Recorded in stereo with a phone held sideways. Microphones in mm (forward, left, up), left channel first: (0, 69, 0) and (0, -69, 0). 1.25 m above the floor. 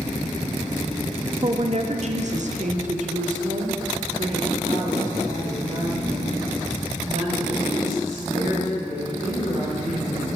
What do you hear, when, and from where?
1.4 s a woman speaking: 40° right (ahead or behind), 0.6 m; by 10.4 s 65° right (ahead or behind), 5 m